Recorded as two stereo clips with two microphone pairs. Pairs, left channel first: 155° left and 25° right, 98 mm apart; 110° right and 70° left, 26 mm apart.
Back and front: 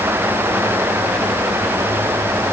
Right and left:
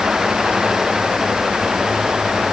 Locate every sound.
Only background noise.